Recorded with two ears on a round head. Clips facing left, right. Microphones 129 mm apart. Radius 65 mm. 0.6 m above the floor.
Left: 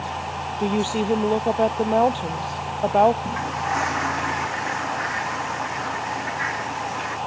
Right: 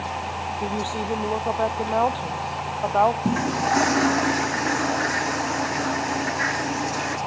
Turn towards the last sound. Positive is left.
turn(degrees=-45)  # may be behind; listen again after turning